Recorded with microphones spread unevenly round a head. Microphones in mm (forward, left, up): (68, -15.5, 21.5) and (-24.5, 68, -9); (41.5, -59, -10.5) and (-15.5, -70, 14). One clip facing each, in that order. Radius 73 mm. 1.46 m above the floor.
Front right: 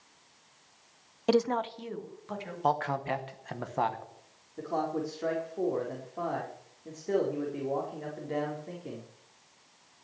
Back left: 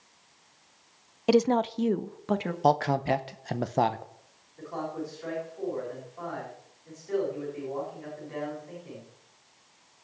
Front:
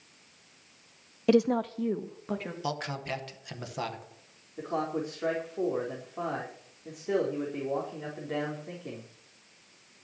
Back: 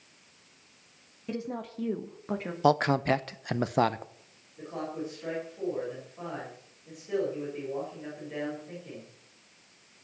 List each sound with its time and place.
1.3 s a woman speaking: 50° left, 0.6 m; by 2.5 s 115° left, 1.7 m
2.6 s a man speaking: 155° right, 0.8 m
4.6 s a man speaking: 10° right, 4 m